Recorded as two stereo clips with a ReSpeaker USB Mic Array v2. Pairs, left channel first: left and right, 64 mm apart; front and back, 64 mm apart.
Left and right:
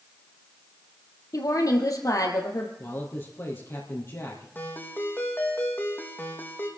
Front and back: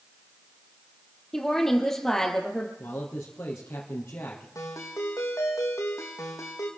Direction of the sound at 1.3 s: 85° left.